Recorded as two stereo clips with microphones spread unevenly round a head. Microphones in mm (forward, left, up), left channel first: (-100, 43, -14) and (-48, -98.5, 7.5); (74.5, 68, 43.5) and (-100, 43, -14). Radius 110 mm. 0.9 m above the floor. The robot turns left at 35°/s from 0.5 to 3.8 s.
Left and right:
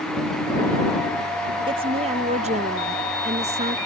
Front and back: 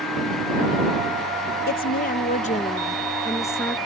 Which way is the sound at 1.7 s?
20° right.